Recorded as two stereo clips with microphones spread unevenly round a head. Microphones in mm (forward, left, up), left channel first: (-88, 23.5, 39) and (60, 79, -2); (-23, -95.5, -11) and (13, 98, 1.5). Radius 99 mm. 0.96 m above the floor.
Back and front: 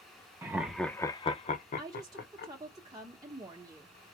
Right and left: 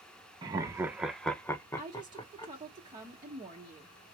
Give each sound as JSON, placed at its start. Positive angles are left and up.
{"t": 0.4, "sound": "laughter", "azimuth_deg": 20, "distance_m": 0.6}
{"t": 1.8, "sound": "a woman speaking", "azimuth_deg": 20, "distance_m": 0.9}